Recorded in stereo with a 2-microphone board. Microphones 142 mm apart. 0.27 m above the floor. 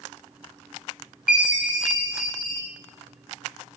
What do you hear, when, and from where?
1.3 s a chime: centre (ahead or behind), 1.3 m